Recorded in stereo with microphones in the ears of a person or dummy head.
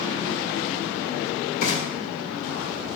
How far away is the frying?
About 2.5 m.